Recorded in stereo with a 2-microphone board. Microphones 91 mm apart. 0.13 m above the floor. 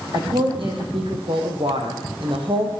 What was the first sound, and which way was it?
A woman speaking, 70° right (ahead or behind).